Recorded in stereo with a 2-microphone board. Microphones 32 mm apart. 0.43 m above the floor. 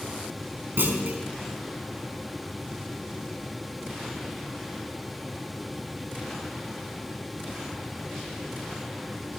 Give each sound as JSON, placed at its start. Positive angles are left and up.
{"t": 0.8, "sound": "a clunk", "side_deg": -75, "distance_m": 4.0}